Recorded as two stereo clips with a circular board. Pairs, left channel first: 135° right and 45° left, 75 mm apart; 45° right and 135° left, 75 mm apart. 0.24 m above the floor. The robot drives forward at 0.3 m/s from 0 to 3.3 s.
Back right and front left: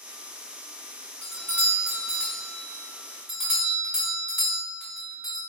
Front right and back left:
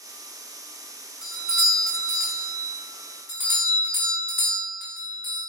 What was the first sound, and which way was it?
A doorbell, 60° left.